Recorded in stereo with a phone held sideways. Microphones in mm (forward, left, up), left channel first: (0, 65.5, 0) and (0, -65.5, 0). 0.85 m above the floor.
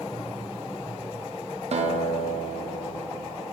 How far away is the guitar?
About 0.6 m.